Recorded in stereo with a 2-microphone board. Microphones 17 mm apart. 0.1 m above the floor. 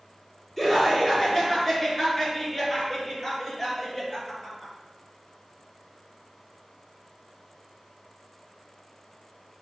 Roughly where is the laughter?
Centre.